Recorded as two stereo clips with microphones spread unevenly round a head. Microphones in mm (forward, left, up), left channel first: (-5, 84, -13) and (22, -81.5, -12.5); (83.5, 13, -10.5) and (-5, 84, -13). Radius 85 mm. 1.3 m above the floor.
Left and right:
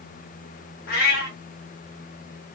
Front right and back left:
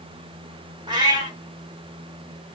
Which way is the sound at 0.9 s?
105° left.